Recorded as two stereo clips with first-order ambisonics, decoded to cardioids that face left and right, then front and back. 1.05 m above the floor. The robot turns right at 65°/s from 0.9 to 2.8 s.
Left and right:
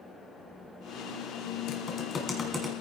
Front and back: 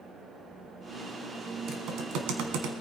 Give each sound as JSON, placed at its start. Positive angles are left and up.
{"t": 1.7, "sound": "typing on a keyboard", "azimuth_deg": 125, "distance_m": 2.0}